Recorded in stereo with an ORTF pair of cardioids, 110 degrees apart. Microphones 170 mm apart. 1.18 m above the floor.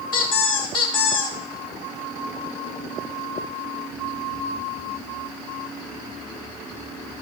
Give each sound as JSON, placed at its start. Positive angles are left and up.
{"t": 0.1, "sound": "a squeak", "azimuth_deg": 65, "distance_m": 1.8}